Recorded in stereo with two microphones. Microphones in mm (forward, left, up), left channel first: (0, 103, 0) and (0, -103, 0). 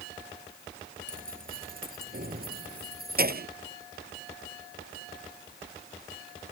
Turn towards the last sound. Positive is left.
turn(degrees=-50)  # may be behind; listen again after turning